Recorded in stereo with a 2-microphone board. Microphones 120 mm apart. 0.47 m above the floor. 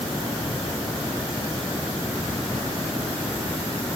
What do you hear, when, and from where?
Only background noise.